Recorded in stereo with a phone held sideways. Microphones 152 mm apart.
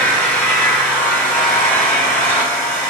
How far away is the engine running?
About 3.5 m.